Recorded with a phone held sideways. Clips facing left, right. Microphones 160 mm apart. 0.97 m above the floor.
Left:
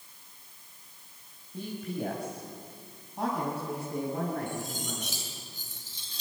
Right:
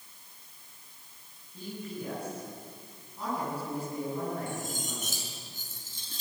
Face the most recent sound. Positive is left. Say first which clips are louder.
# left 1 dB
turn(degrees=-50)  # may be behind; listen again after turning